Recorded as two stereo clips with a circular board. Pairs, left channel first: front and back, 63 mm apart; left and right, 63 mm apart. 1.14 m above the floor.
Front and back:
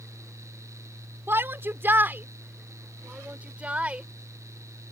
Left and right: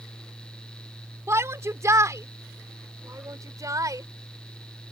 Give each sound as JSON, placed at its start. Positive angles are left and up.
{"t": 1.3, "sound": "a shout", "azimuth_deg": -130}